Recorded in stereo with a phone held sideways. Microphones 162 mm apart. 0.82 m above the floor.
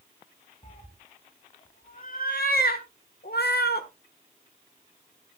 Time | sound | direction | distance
0.6 | a cat meowing | 45° left (ahead or behind) | 2.5 m